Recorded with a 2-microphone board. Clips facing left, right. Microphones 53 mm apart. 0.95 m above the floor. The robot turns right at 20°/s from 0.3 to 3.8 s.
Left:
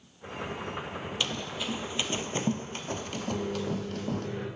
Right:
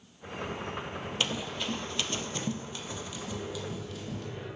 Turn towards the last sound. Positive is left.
turn(degrees=85)